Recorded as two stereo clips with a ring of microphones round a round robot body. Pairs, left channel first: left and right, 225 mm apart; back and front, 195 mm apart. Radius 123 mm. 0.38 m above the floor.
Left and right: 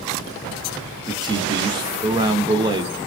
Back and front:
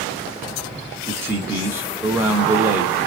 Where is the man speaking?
55° right, 0.9 m.